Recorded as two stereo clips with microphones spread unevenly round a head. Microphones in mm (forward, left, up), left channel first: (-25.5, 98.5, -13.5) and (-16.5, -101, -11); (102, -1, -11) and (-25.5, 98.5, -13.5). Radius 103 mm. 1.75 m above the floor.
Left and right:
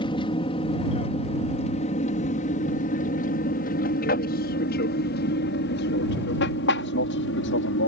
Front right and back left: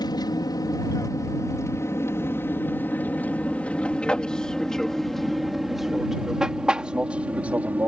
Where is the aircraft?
25° left; by 7.9 s 60° left.